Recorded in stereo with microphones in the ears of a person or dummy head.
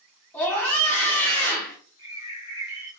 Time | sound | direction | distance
0.3 | a scream | 5° left (ahead or behind) | 1.4 m
2.0 | a bird | 20° left (ahead or behind) | 2.5 m